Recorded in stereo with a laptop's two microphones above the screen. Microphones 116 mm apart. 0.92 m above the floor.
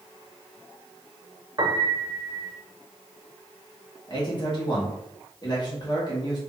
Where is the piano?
40° right (ahead or behind), 0.7 m.